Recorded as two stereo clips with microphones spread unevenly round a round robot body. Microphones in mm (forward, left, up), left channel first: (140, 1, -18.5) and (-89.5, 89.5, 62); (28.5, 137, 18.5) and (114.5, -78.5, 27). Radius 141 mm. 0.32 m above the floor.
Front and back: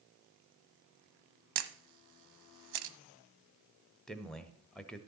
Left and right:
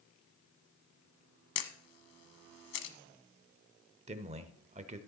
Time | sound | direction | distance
1.6 | a camera shutter | 145° left | 1.0 m
4.1 | a man speaking | 60° right | 0.9 m